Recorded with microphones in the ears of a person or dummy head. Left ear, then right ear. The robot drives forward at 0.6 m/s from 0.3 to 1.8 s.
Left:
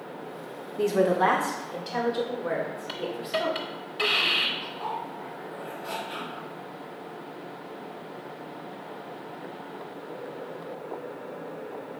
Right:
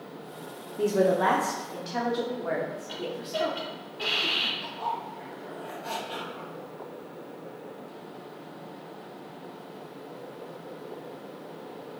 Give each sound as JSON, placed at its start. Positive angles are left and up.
{"t": 0.8, "sound": "a woman speaking", "side_deg": 25, "distance_m": 0.5}
{"t": 2.9, "sound": "a hiss", "side_deg": 50, "distance_m": 0.9}
{"t": 4.6, "sound": "a zipper", "side_deg": -5, "distance_m": 1.8}